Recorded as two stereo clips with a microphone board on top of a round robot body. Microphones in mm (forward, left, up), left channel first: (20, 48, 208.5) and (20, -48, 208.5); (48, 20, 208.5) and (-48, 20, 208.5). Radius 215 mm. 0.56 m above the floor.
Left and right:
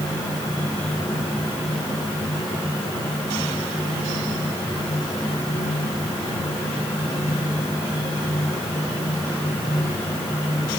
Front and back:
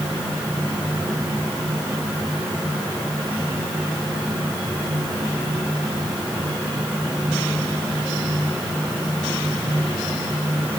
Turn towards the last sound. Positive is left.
No sound to turn to.